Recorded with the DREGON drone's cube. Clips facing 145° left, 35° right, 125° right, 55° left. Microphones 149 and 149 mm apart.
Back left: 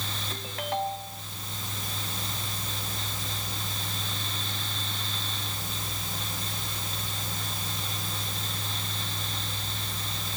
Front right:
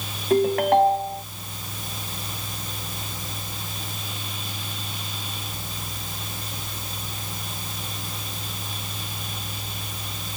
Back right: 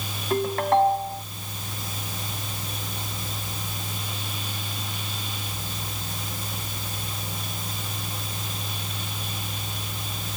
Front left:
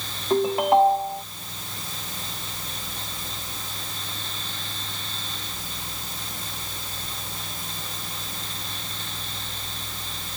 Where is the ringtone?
20° right.